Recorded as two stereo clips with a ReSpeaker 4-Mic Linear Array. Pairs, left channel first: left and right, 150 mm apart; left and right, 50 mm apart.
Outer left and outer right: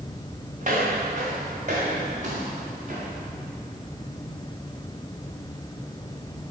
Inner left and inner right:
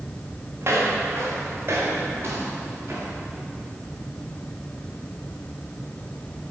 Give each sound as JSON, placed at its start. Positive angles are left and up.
{"t": 0.6, "sound": "footsteps", "side_deg": -50, "distance_m": 4.5}